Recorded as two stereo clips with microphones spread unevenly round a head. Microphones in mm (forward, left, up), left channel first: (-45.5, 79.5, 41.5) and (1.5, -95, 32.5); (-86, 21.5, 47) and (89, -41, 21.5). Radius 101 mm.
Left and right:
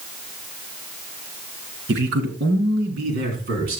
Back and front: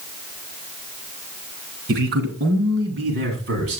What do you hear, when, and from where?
1.9 s a man speaking: 40° right, 2.5 m; by 3.8 s 30° right, 4.5 m